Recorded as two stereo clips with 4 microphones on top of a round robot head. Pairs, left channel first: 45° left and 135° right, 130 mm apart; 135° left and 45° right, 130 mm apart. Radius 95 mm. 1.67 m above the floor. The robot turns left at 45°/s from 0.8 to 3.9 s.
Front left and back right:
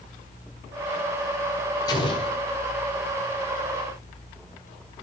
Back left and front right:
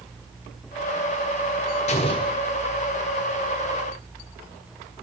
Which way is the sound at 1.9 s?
105° left.